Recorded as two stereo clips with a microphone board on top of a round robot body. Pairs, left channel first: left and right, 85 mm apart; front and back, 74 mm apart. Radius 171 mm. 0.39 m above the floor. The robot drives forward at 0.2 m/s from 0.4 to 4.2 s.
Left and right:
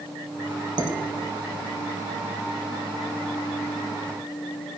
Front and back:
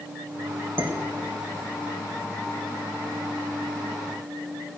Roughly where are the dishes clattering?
Behind right.